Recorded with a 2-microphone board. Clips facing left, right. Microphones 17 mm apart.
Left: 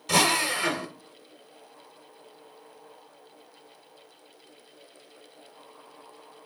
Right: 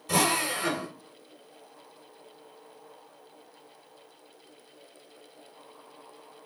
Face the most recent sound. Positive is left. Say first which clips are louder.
# left 3 dB
turn(degrees=55)  # may be behind; listen again after turning